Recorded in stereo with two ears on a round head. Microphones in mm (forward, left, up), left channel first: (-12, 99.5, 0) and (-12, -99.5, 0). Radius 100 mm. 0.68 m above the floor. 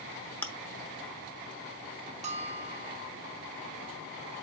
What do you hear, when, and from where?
0.4 s chewing: 5° left (ahead or behind), 0.9 m
2.2 s a bell: 30° right (ahead or behind), 1.1 m